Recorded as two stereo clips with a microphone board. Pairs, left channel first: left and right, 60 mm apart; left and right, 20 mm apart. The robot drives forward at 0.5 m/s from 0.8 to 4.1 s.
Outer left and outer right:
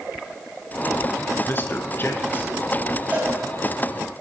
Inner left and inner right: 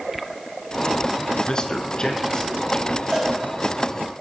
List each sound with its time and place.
1.5 s a man speaking: 40° left (ahead or behind), 1.5 m; by 3.0 s 30° left (ahead or behind), 1.9 m
3.1 s a cowbell: 25° right (ahead or behind), 7.5 m